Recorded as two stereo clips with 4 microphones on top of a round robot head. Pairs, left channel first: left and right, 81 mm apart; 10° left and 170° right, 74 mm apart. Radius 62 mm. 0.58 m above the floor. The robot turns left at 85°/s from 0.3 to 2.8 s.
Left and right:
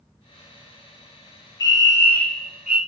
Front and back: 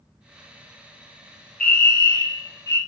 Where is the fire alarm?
80° left, 2.5 m; by 2.8 s 20° right, 2.5 m.